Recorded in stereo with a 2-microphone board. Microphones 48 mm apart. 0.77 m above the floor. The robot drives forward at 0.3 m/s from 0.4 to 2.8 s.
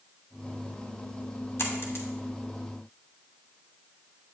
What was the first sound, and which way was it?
A dropped coin, 60° left (ahead or behind).